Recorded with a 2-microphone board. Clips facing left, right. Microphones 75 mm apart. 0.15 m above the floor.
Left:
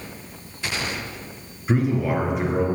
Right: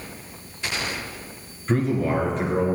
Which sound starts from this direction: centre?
A man speaking, at 1.7 s.